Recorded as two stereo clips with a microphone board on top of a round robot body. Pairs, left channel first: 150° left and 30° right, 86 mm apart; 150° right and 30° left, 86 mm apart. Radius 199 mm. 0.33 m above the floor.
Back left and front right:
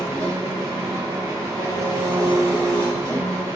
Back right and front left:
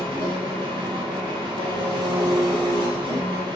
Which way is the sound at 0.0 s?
20° left.